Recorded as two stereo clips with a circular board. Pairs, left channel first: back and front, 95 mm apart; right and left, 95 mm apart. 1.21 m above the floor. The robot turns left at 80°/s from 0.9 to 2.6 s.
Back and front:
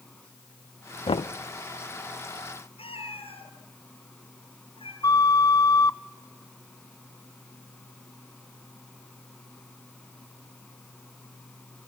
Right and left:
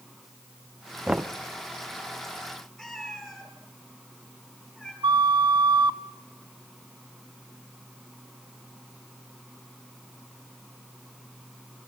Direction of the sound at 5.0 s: 130° left.